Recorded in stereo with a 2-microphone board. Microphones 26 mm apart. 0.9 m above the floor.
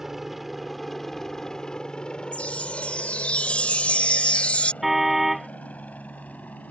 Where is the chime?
55° left (ahead or behind).